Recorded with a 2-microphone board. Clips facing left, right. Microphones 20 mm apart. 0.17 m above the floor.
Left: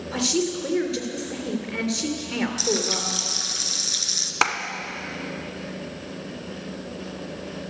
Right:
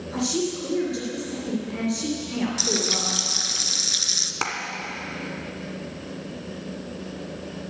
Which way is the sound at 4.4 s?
35° left (ahead or behind).